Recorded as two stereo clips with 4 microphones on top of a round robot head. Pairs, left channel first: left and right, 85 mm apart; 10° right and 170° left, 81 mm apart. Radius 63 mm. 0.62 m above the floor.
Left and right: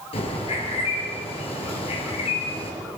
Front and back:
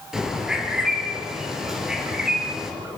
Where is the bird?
85° left, 5 m.